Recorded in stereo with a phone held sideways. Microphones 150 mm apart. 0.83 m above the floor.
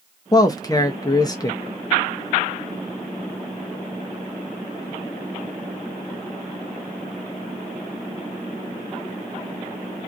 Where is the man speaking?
25° left (ahead or behind), 0.7 m.